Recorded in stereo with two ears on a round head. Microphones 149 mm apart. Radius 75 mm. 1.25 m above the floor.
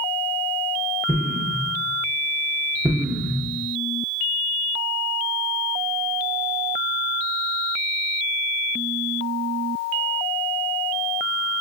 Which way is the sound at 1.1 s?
5° right (ahead or behind).